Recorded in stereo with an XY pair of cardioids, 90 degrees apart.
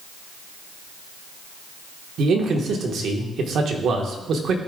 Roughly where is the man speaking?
Ahead right.